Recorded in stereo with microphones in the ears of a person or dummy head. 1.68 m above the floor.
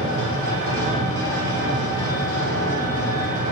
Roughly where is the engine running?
Right.